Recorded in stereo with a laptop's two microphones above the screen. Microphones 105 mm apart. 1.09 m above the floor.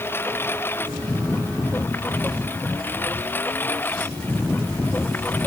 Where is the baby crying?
No baby crying in this recording.